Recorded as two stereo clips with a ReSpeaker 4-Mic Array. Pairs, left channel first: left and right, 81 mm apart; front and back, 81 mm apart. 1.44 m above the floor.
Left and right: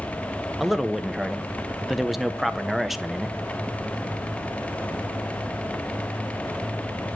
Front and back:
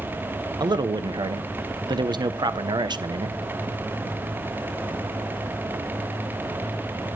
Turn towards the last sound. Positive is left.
turn(degrees=-175)